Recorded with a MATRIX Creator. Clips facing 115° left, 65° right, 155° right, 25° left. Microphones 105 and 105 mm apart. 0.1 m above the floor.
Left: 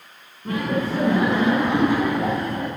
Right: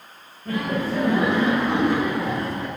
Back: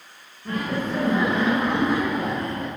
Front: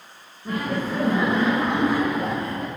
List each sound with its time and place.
0.5 s laughter: 110° left, 5 m; by 2.7 s 115° left, 3.5 m